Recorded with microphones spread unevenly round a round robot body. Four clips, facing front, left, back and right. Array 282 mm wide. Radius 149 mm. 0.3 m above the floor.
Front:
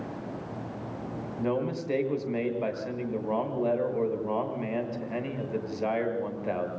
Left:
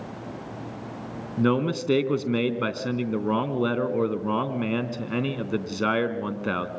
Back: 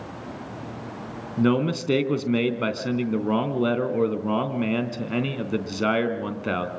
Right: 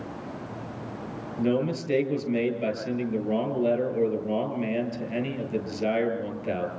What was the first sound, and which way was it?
A man speaking, 140° left.